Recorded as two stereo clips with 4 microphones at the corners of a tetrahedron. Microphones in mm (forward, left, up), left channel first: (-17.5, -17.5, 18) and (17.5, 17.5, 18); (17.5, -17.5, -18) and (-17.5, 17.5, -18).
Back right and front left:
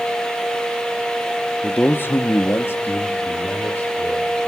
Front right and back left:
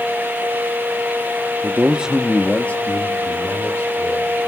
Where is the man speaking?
165° left, 0.7 m; by 4.3 s 80° right, 2.5 m.